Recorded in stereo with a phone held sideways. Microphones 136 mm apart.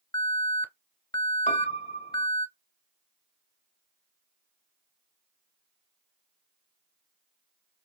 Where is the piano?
55° left (ahead or behind), 0.5 m.